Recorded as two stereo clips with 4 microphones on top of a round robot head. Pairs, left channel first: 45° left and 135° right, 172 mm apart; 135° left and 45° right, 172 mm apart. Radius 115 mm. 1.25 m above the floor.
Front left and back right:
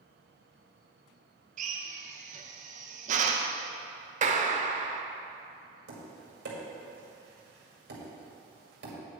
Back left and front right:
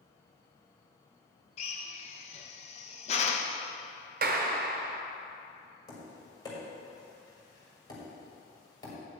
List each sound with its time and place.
1.6 s a drill: 175° right, 0.5 m
4.2 s a clap: 85° right, 0.8 m
5.9 s tapping: 160° right, 2.0 m